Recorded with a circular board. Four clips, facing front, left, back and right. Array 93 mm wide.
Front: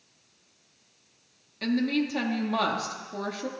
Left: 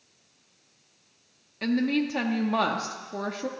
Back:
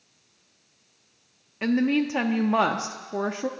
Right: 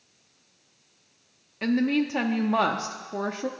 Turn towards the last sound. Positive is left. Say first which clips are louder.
# right 2 dB, back 4 dB
turn(degrees=-165)